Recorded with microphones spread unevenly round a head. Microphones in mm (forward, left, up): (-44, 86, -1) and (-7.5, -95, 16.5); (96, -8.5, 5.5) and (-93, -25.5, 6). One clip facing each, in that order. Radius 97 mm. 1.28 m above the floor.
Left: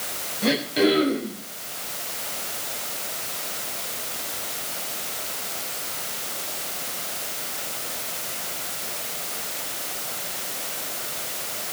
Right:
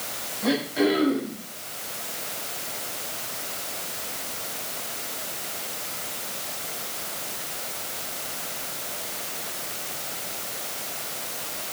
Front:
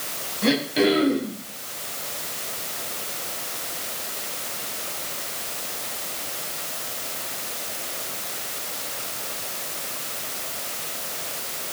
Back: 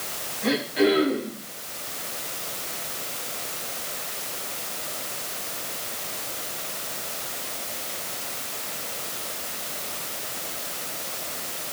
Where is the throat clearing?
45° left, 5.5 m.